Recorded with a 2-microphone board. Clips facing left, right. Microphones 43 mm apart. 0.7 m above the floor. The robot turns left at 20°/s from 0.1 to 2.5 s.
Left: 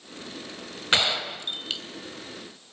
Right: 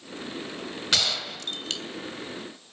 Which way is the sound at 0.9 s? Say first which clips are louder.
Left 4 dB; 30° left (ahead or behind).